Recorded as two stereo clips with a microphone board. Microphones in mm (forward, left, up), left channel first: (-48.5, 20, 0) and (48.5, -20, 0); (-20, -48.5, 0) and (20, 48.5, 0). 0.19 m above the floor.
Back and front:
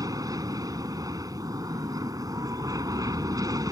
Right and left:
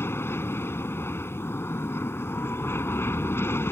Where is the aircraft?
55° right.